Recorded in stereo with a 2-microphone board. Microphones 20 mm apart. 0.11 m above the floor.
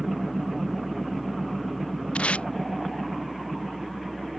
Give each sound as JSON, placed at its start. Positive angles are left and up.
{"t": 2.1, "sound": "tape being pulled", "side_deg": 85}